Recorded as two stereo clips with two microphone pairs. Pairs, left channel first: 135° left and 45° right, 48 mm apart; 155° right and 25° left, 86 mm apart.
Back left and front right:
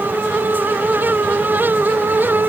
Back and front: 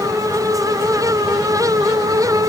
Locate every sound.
Only background noise.